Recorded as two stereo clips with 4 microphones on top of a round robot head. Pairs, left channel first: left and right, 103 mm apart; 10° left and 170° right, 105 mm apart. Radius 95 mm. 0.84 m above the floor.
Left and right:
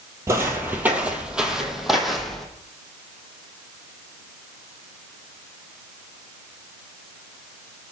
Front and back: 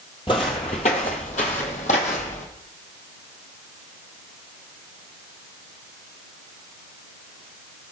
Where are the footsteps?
40° right, 1.0 m; by 2.5 s straight ahead, 1.7 m.